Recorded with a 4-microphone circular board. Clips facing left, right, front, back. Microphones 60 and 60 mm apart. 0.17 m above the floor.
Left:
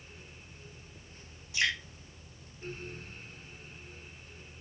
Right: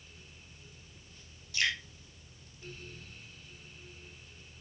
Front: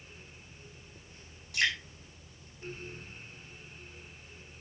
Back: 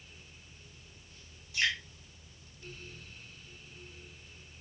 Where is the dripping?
20° left, 4.5 m.